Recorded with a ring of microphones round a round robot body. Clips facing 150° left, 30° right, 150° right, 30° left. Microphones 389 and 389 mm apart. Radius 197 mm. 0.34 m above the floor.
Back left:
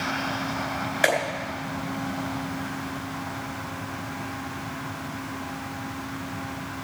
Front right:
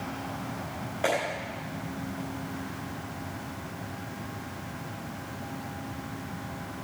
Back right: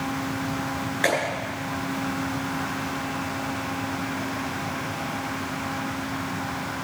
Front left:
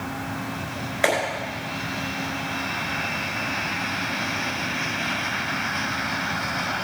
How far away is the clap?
About 4 m.